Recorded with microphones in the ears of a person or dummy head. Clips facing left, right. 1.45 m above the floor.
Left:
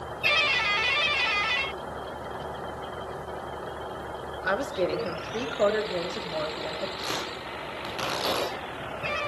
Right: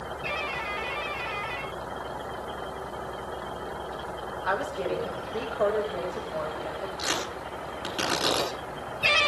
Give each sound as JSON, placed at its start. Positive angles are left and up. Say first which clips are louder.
{"t": 4.4, "sound": "a woman speaking", "louder": "left 3 dB", "side_deg": 35, "distance_m": 3.5}
{"t": 7.0, "sound": "tearing paper", "louder": "right 1 dB", "side_deg": -10, "distance_m": 9.5}